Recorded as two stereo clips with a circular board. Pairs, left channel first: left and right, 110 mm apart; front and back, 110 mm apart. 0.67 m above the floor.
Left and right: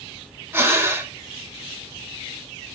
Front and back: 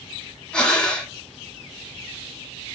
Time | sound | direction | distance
0.5 | breathing | 70° right | 0.9 m